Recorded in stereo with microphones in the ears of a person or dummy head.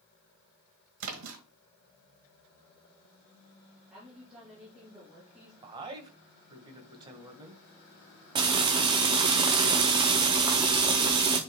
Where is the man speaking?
25° right (ahead or behind), 1.6 m.